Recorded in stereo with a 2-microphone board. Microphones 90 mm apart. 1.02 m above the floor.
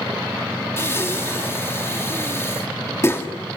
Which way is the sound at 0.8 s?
30° left (ahead or behind).